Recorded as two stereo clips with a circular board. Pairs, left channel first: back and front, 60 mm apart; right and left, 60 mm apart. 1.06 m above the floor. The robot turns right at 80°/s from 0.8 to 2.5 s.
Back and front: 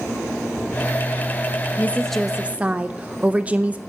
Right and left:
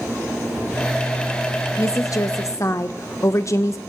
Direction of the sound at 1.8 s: 125° right.